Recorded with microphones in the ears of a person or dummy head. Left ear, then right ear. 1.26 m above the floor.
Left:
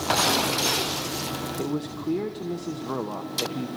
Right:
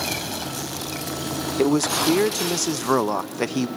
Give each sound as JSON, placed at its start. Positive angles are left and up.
{"t": 1.6, "sound": "a man speaking", "side_deg": -65, "distance_m": 0.8}